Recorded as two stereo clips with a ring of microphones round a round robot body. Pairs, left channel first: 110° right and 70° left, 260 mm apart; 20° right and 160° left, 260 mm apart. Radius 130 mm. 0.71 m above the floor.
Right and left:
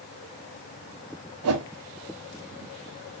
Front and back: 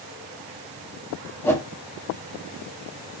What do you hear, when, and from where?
1.4 s a whoosh: 55° left, 0.7 m